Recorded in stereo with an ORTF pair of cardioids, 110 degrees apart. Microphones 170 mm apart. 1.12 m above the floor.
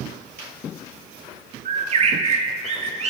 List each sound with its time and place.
1.6 s a bird: 40° right, 1.4 m